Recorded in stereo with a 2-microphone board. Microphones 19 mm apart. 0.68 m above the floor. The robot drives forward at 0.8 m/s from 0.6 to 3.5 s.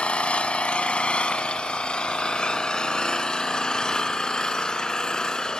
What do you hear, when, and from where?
0.0 s an engine running: 80° left, 2.5 m; by 5.6 s 40° left (ahead or behind), 3.5 m